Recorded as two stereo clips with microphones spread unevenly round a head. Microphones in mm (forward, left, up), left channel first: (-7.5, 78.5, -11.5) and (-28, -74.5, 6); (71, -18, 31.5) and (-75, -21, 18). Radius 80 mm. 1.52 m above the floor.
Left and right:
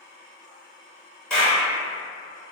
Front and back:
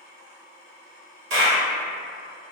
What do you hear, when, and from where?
1.3 s a clap: 170° left, 1.6 m